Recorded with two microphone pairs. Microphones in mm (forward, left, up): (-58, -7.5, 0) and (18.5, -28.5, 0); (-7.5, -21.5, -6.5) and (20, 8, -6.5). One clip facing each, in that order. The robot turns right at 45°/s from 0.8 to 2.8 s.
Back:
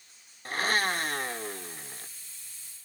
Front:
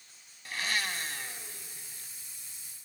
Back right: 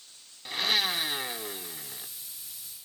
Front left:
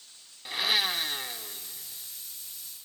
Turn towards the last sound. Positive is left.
turn(degrees=-140)